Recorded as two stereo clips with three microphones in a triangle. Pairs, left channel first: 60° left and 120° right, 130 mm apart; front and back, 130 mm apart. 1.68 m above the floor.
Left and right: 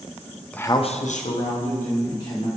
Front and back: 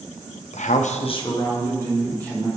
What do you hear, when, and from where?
0.5 s a man speaking: 20° right, 0.6 m; by 2.5 s 80° left, 2.5 m